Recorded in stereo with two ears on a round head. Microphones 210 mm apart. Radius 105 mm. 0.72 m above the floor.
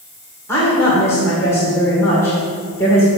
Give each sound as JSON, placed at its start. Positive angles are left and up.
{"t": 0.5, "sound": "a woman speaking", "side_deg": 10, "distance_m": 2.5}